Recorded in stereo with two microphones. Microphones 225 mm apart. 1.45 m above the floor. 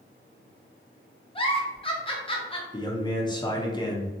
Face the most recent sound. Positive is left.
turn(degrees=20)  # may be behind; listen again after turning